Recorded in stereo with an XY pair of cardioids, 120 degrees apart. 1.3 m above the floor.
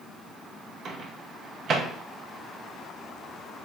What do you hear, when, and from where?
0.8 s a microwave: 55° right, 0.7 m